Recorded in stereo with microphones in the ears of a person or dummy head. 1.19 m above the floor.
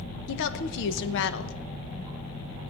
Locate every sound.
0.3 s a woman speaking: 70° left (ahead or behind), 0.9 m